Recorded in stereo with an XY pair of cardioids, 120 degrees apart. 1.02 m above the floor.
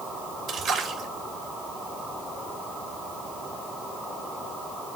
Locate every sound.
0.5 s a splash: 60° right, 2.5 m